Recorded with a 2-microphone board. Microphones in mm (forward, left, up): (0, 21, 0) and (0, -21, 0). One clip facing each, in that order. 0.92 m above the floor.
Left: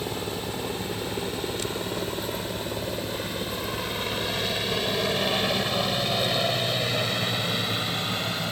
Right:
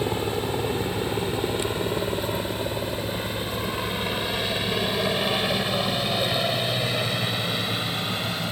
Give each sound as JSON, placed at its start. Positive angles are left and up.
{"t": 0.0, "sound": "a helicopter", "side_deg": -25}